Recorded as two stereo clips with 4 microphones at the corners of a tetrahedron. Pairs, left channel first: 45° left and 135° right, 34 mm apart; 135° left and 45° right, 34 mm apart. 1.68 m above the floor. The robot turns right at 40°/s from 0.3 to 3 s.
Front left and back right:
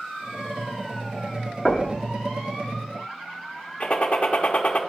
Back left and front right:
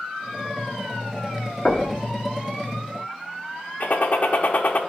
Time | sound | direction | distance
1.6 | knocking | 140° left | 1.2 m
3.8 | a gunshot | 95° left | 0.7 m